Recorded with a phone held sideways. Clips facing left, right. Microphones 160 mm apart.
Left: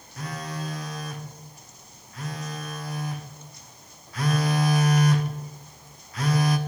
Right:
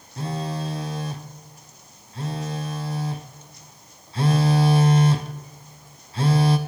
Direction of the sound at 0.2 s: 30° right (ahead or behind).